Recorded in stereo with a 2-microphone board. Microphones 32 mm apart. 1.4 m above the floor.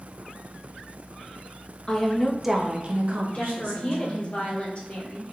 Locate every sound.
1.9 s a woman speaking: 25° left (ahead or behind), 0.7 m; by 4.3 s 80° right, 1.3 m
3.3 s a woman speaking: 50° left (ahead or behind), 1.6 m